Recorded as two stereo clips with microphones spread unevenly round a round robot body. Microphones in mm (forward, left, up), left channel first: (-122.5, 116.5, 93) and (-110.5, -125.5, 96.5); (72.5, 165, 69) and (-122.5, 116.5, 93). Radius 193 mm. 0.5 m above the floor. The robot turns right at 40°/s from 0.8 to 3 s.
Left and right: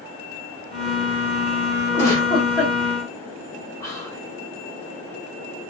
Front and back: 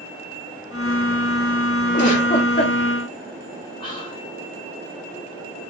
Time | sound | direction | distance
1.9 | a giggle | 15° left | 1.2 m
3.8 | whispering | 30° left | 1.5 m